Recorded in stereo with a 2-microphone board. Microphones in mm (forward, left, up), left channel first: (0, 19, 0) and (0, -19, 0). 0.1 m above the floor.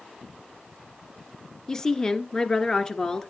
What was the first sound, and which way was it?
A woman speaking, 20° left (ahead or behind).